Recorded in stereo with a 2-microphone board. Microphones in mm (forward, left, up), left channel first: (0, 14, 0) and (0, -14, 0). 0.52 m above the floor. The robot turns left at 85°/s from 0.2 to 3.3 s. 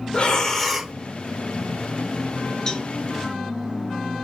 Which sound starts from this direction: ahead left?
Breathing, at 0.1 s.